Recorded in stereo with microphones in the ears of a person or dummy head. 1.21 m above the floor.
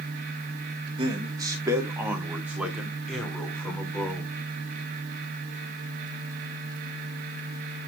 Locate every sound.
1.0 s a man speaking: 25° right (ahead or behind), 2 m; by 4.3 s 10° left (ahead or behind), 3.5 m